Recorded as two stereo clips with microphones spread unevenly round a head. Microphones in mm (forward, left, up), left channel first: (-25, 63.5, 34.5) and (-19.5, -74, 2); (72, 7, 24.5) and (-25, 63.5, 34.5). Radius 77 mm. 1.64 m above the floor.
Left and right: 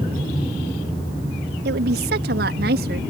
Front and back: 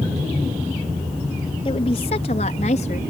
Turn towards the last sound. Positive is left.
turn(degrees=-70)